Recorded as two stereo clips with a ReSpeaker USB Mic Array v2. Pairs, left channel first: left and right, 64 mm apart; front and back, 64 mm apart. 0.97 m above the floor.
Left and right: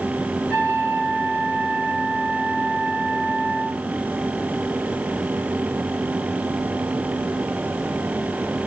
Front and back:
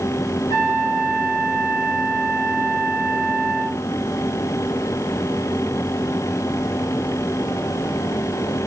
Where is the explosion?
I don't hear an explosion.